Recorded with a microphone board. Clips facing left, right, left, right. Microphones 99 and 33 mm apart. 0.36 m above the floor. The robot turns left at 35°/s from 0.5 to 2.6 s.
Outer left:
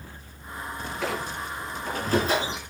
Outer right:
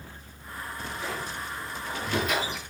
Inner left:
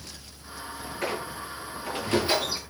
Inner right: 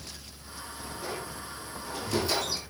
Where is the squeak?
75° left, 5.5 m; by 2.6 s 20° left, 5.5 m.